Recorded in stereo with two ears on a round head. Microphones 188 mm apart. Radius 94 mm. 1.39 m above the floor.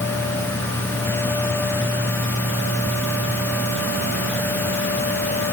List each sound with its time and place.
Only background noise.